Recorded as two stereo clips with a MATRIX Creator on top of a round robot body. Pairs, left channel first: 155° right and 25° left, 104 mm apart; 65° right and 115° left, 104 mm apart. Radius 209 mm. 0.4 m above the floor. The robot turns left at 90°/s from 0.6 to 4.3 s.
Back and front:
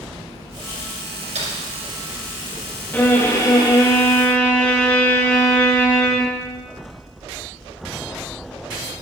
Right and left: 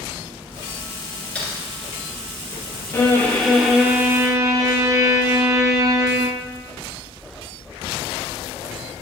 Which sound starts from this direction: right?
A violin, at 2.9 s.